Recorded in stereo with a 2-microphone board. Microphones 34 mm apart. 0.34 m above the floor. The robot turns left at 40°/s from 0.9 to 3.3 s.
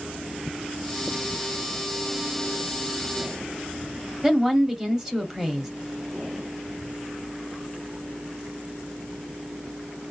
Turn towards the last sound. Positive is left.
turn(degrees=-15)  # may be behind; listen again after turning